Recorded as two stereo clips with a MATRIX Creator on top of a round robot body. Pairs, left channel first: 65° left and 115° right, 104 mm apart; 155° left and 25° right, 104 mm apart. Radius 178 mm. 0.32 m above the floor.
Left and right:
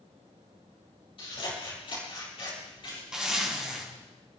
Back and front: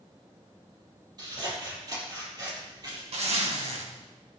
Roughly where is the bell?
I don't hear a bell.